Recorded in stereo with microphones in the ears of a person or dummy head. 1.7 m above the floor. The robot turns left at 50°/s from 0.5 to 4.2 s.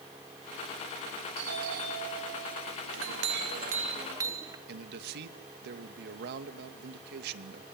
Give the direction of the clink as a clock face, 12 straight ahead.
3 o'clock.